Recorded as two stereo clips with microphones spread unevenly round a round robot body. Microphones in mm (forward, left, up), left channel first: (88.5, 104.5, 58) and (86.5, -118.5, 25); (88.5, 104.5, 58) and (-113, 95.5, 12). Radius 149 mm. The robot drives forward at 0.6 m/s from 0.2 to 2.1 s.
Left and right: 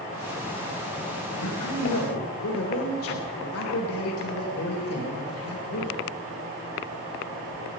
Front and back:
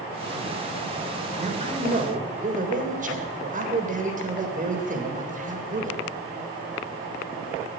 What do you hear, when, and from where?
1.4 s a man speaking: 125° left, 3 m; by 6.0 s 130° left, 3.5 m